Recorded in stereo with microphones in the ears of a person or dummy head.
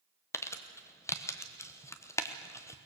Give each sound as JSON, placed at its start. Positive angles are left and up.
{"t": 0.3, "sound": "crumpling", "side_deg": 15, "distance_m": 1.1}